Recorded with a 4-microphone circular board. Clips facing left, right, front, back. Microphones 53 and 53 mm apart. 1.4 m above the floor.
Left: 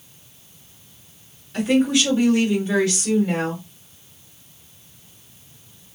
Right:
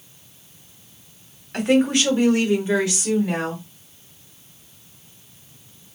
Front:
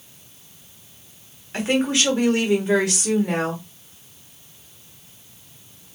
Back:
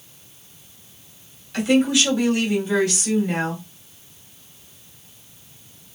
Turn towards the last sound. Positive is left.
turn(degrees=-5)